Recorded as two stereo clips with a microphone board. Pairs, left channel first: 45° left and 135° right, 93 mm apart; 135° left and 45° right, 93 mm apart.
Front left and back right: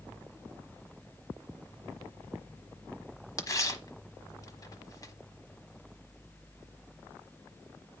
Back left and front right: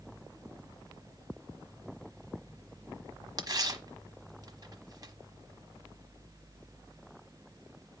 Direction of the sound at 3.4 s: 5° right.